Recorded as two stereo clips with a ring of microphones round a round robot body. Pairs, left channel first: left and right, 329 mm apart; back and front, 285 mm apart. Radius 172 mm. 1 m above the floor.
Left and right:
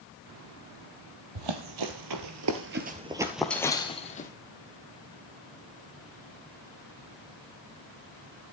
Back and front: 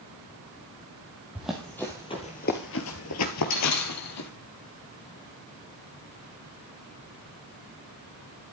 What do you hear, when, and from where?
1.4 s running footsteps: 85° right, 2 m; by 4.3 s 155° left, 2 m